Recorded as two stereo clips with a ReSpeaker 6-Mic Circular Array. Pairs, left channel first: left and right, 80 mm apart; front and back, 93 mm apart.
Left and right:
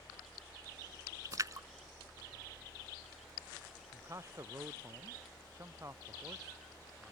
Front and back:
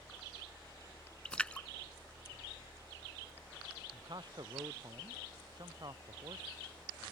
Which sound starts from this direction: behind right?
A man speaking, at 3.9 s.